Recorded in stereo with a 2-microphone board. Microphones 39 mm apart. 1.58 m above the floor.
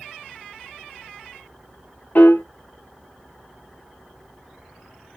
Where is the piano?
55° left (ahead or behind), 0.9 m.